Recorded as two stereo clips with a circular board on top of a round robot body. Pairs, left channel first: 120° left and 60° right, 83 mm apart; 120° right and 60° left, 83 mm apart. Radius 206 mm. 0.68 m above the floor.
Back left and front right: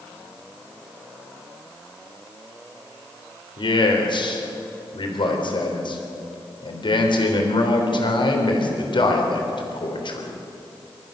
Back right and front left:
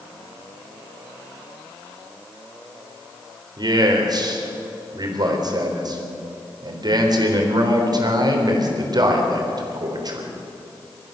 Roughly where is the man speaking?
Left.